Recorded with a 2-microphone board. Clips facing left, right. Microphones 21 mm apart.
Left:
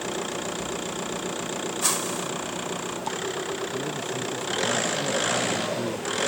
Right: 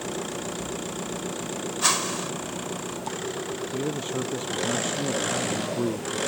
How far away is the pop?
No pop in this recording.